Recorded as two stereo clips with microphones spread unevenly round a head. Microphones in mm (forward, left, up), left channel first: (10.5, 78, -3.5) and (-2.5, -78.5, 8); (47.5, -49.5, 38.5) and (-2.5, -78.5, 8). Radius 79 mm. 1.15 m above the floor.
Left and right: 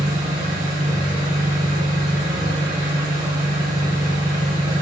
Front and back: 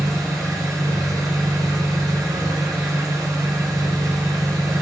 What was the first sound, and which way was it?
An engine running, 165° right.